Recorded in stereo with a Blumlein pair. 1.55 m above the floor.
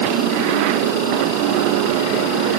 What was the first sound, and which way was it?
Only background noise.